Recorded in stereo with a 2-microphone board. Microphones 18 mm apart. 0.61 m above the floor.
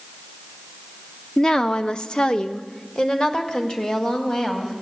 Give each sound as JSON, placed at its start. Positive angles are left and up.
{"t": 1.4, "sound": "a woman speaking", "side_deg": 30, "distance_m": 0.8}